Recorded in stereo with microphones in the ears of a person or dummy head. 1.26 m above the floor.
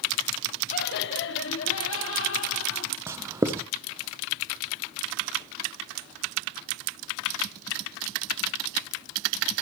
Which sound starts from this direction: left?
Laughter, at 0.7 s.